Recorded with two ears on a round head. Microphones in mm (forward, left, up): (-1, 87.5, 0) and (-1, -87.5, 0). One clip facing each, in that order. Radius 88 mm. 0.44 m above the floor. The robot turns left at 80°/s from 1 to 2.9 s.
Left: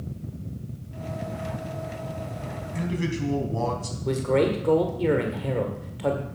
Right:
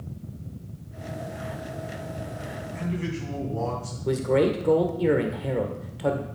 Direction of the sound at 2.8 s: 45° left (ahead or behind).